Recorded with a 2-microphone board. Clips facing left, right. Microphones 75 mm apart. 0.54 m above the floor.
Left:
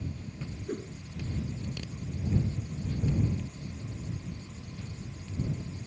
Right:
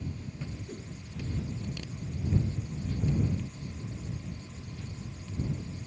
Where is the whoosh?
50° left (ahead or behind).